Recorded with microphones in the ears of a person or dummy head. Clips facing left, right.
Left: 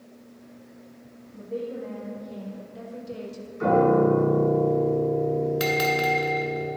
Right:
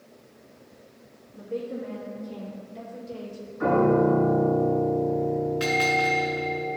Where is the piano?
35° left (ahead or behind), 3 m.